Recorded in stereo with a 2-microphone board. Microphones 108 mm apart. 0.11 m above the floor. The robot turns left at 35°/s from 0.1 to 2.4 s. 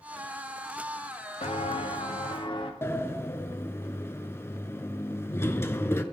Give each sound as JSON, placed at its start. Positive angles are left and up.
{"t": 1.4, "sound": "footsteps", "side_deg": 80, "distance_m": 1.1}
{"t": 2.8, "sound": "a sliding door", "side_deg": 25, "distance_m": 0.6}